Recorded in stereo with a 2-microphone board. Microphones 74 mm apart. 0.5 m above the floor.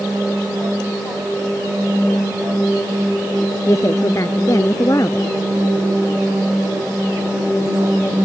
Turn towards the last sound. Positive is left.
turn(degrees=45)  # may be behind; listen again after turning